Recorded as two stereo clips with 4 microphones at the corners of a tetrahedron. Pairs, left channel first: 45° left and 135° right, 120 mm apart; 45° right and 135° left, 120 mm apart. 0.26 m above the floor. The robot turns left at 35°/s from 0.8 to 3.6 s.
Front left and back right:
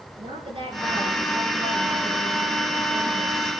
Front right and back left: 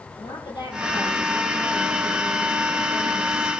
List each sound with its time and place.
0.2 s a woman speaking: 95° right, 5 m; by 3.5 s 170° left, 5 m